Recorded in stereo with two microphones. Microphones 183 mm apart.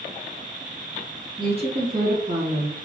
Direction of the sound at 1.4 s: 25° right (ahead or behind).